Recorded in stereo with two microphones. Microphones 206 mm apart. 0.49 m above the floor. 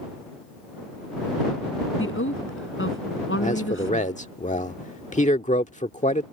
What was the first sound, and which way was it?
A woman speaking, 80° left.